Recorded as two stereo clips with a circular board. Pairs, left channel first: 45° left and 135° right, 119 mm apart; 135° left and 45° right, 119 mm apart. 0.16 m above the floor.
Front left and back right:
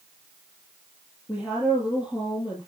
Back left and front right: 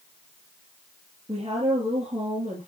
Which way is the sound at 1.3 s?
15° right.